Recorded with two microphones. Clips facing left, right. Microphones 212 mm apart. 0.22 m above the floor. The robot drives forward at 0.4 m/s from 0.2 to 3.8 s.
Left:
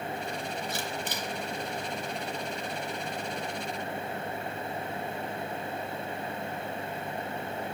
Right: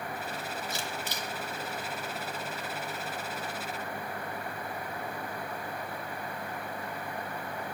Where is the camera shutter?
55° left (ahead or behind), 2.5 m.